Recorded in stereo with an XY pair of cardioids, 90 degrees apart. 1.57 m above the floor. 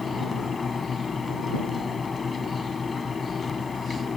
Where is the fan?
35° left.